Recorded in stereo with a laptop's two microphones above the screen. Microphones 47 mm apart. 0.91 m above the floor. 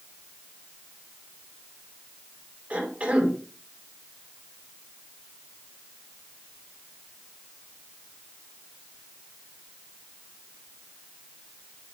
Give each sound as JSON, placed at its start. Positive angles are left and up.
{"t": 2.7, "sound": "a cough", "side_deg": -35, "distance_m": 5.0}